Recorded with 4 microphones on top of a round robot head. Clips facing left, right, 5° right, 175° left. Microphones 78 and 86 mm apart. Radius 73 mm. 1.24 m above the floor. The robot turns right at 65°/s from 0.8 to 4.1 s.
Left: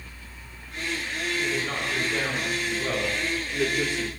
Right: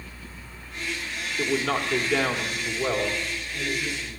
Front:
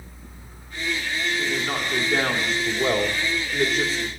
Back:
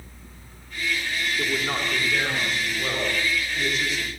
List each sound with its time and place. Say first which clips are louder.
1.4 s a man speaking: right 7 dB, front 1 dB; 115° right, 2.5 m; by 4.1 s 60° left, 2.5 m